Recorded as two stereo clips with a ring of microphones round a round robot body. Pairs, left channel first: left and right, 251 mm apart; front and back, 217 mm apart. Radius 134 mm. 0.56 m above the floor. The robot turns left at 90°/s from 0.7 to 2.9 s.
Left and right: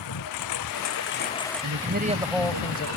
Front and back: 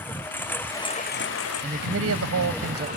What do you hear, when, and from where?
0.0 s a lawn mower: 80° left; by 3.0 s 115° right
1.6 s a man speaking: 110° right; by 2.9 s 135° left